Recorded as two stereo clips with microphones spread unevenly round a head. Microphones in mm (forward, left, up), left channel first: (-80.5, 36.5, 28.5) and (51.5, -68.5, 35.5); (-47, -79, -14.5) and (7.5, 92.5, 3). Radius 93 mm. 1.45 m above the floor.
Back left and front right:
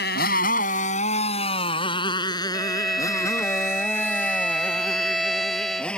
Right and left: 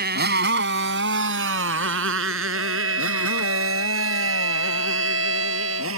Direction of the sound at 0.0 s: 100° left.